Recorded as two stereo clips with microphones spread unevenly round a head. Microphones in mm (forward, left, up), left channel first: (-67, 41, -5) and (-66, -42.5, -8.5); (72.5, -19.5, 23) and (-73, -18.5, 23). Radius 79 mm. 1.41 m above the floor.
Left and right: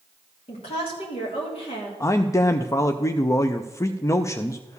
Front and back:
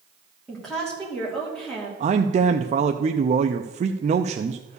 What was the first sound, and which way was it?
A woman speaking, 85° left.